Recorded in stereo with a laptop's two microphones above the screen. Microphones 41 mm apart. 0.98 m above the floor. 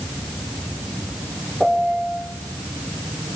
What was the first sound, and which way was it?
A piano, centre (ahead or behind).